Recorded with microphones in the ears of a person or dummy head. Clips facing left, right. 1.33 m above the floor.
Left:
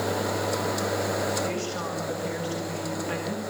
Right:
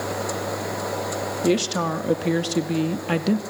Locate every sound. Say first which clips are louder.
1.4 s a woman speaking: right 9 dB; 80° right, 2.5 m; by 3.4 s 70° right (ahead or behind), 2 m